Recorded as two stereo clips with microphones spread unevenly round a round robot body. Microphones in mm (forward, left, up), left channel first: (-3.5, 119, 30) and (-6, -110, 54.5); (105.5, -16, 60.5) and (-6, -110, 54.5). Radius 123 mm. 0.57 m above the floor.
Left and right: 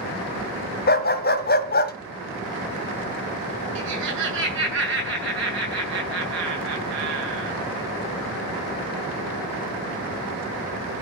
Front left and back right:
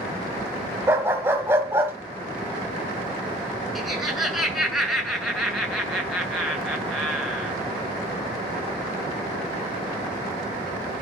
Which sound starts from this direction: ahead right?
Laughter, at 3.8 s.